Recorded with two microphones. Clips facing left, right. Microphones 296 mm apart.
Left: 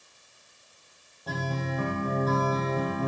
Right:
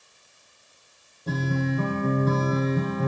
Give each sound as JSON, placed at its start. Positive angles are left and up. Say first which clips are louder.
{"t": 1.3, "sound": "a guitar", "louder": "right 7 dB", "side_deg": -30, "distance_m": 8.0}